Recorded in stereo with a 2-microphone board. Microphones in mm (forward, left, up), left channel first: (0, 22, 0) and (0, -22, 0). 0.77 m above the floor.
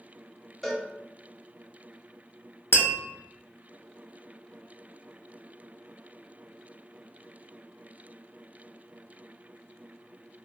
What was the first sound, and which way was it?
A cowbell, centre (ahead or behind).